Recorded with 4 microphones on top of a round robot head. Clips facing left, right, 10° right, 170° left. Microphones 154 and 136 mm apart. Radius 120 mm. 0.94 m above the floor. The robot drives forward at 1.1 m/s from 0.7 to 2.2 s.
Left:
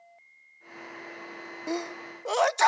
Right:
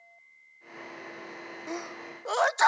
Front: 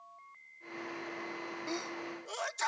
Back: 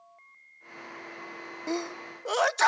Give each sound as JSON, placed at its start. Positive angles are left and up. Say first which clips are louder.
{"t": 1.7, "sound": "a sneeze", "louder": "left 6 dB, back 9 dB", "azimuth_deg": 140}